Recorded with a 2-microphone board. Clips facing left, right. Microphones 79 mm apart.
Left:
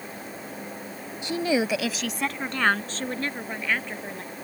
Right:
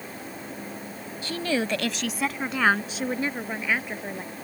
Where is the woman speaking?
20° left (ahead or behind); by 4.3 s 10° right (ahead or behind).